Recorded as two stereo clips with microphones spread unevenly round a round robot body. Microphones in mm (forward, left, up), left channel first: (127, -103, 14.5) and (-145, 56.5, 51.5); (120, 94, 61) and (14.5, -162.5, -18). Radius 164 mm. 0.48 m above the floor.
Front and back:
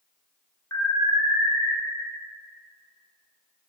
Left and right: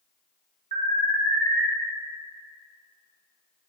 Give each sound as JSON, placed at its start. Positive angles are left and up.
{"t": 0.7, "sound": "an alarm", "azimuth_deg": -100, "distance_m": 2.5}